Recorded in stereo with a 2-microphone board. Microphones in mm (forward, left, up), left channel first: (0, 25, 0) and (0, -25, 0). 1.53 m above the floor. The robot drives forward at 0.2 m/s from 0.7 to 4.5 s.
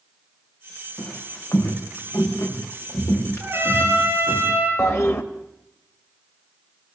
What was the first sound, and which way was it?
Footsteps, 70° left (ahead or behind).